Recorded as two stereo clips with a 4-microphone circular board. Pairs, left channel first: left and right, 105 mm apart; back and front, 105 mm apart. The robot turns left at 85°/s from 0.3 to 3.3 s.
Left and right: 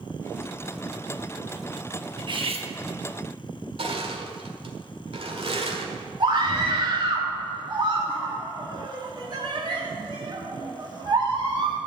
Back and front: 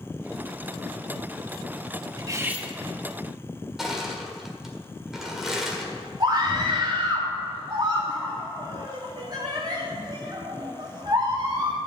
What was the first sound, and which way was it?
Cutlery clinking, 45° right.